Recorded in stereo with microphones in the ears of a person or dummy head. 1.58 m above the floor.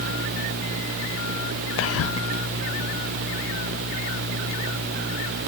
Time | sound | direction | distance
1.8 | whispering | 65° left (ahead or behind) | 0.6 m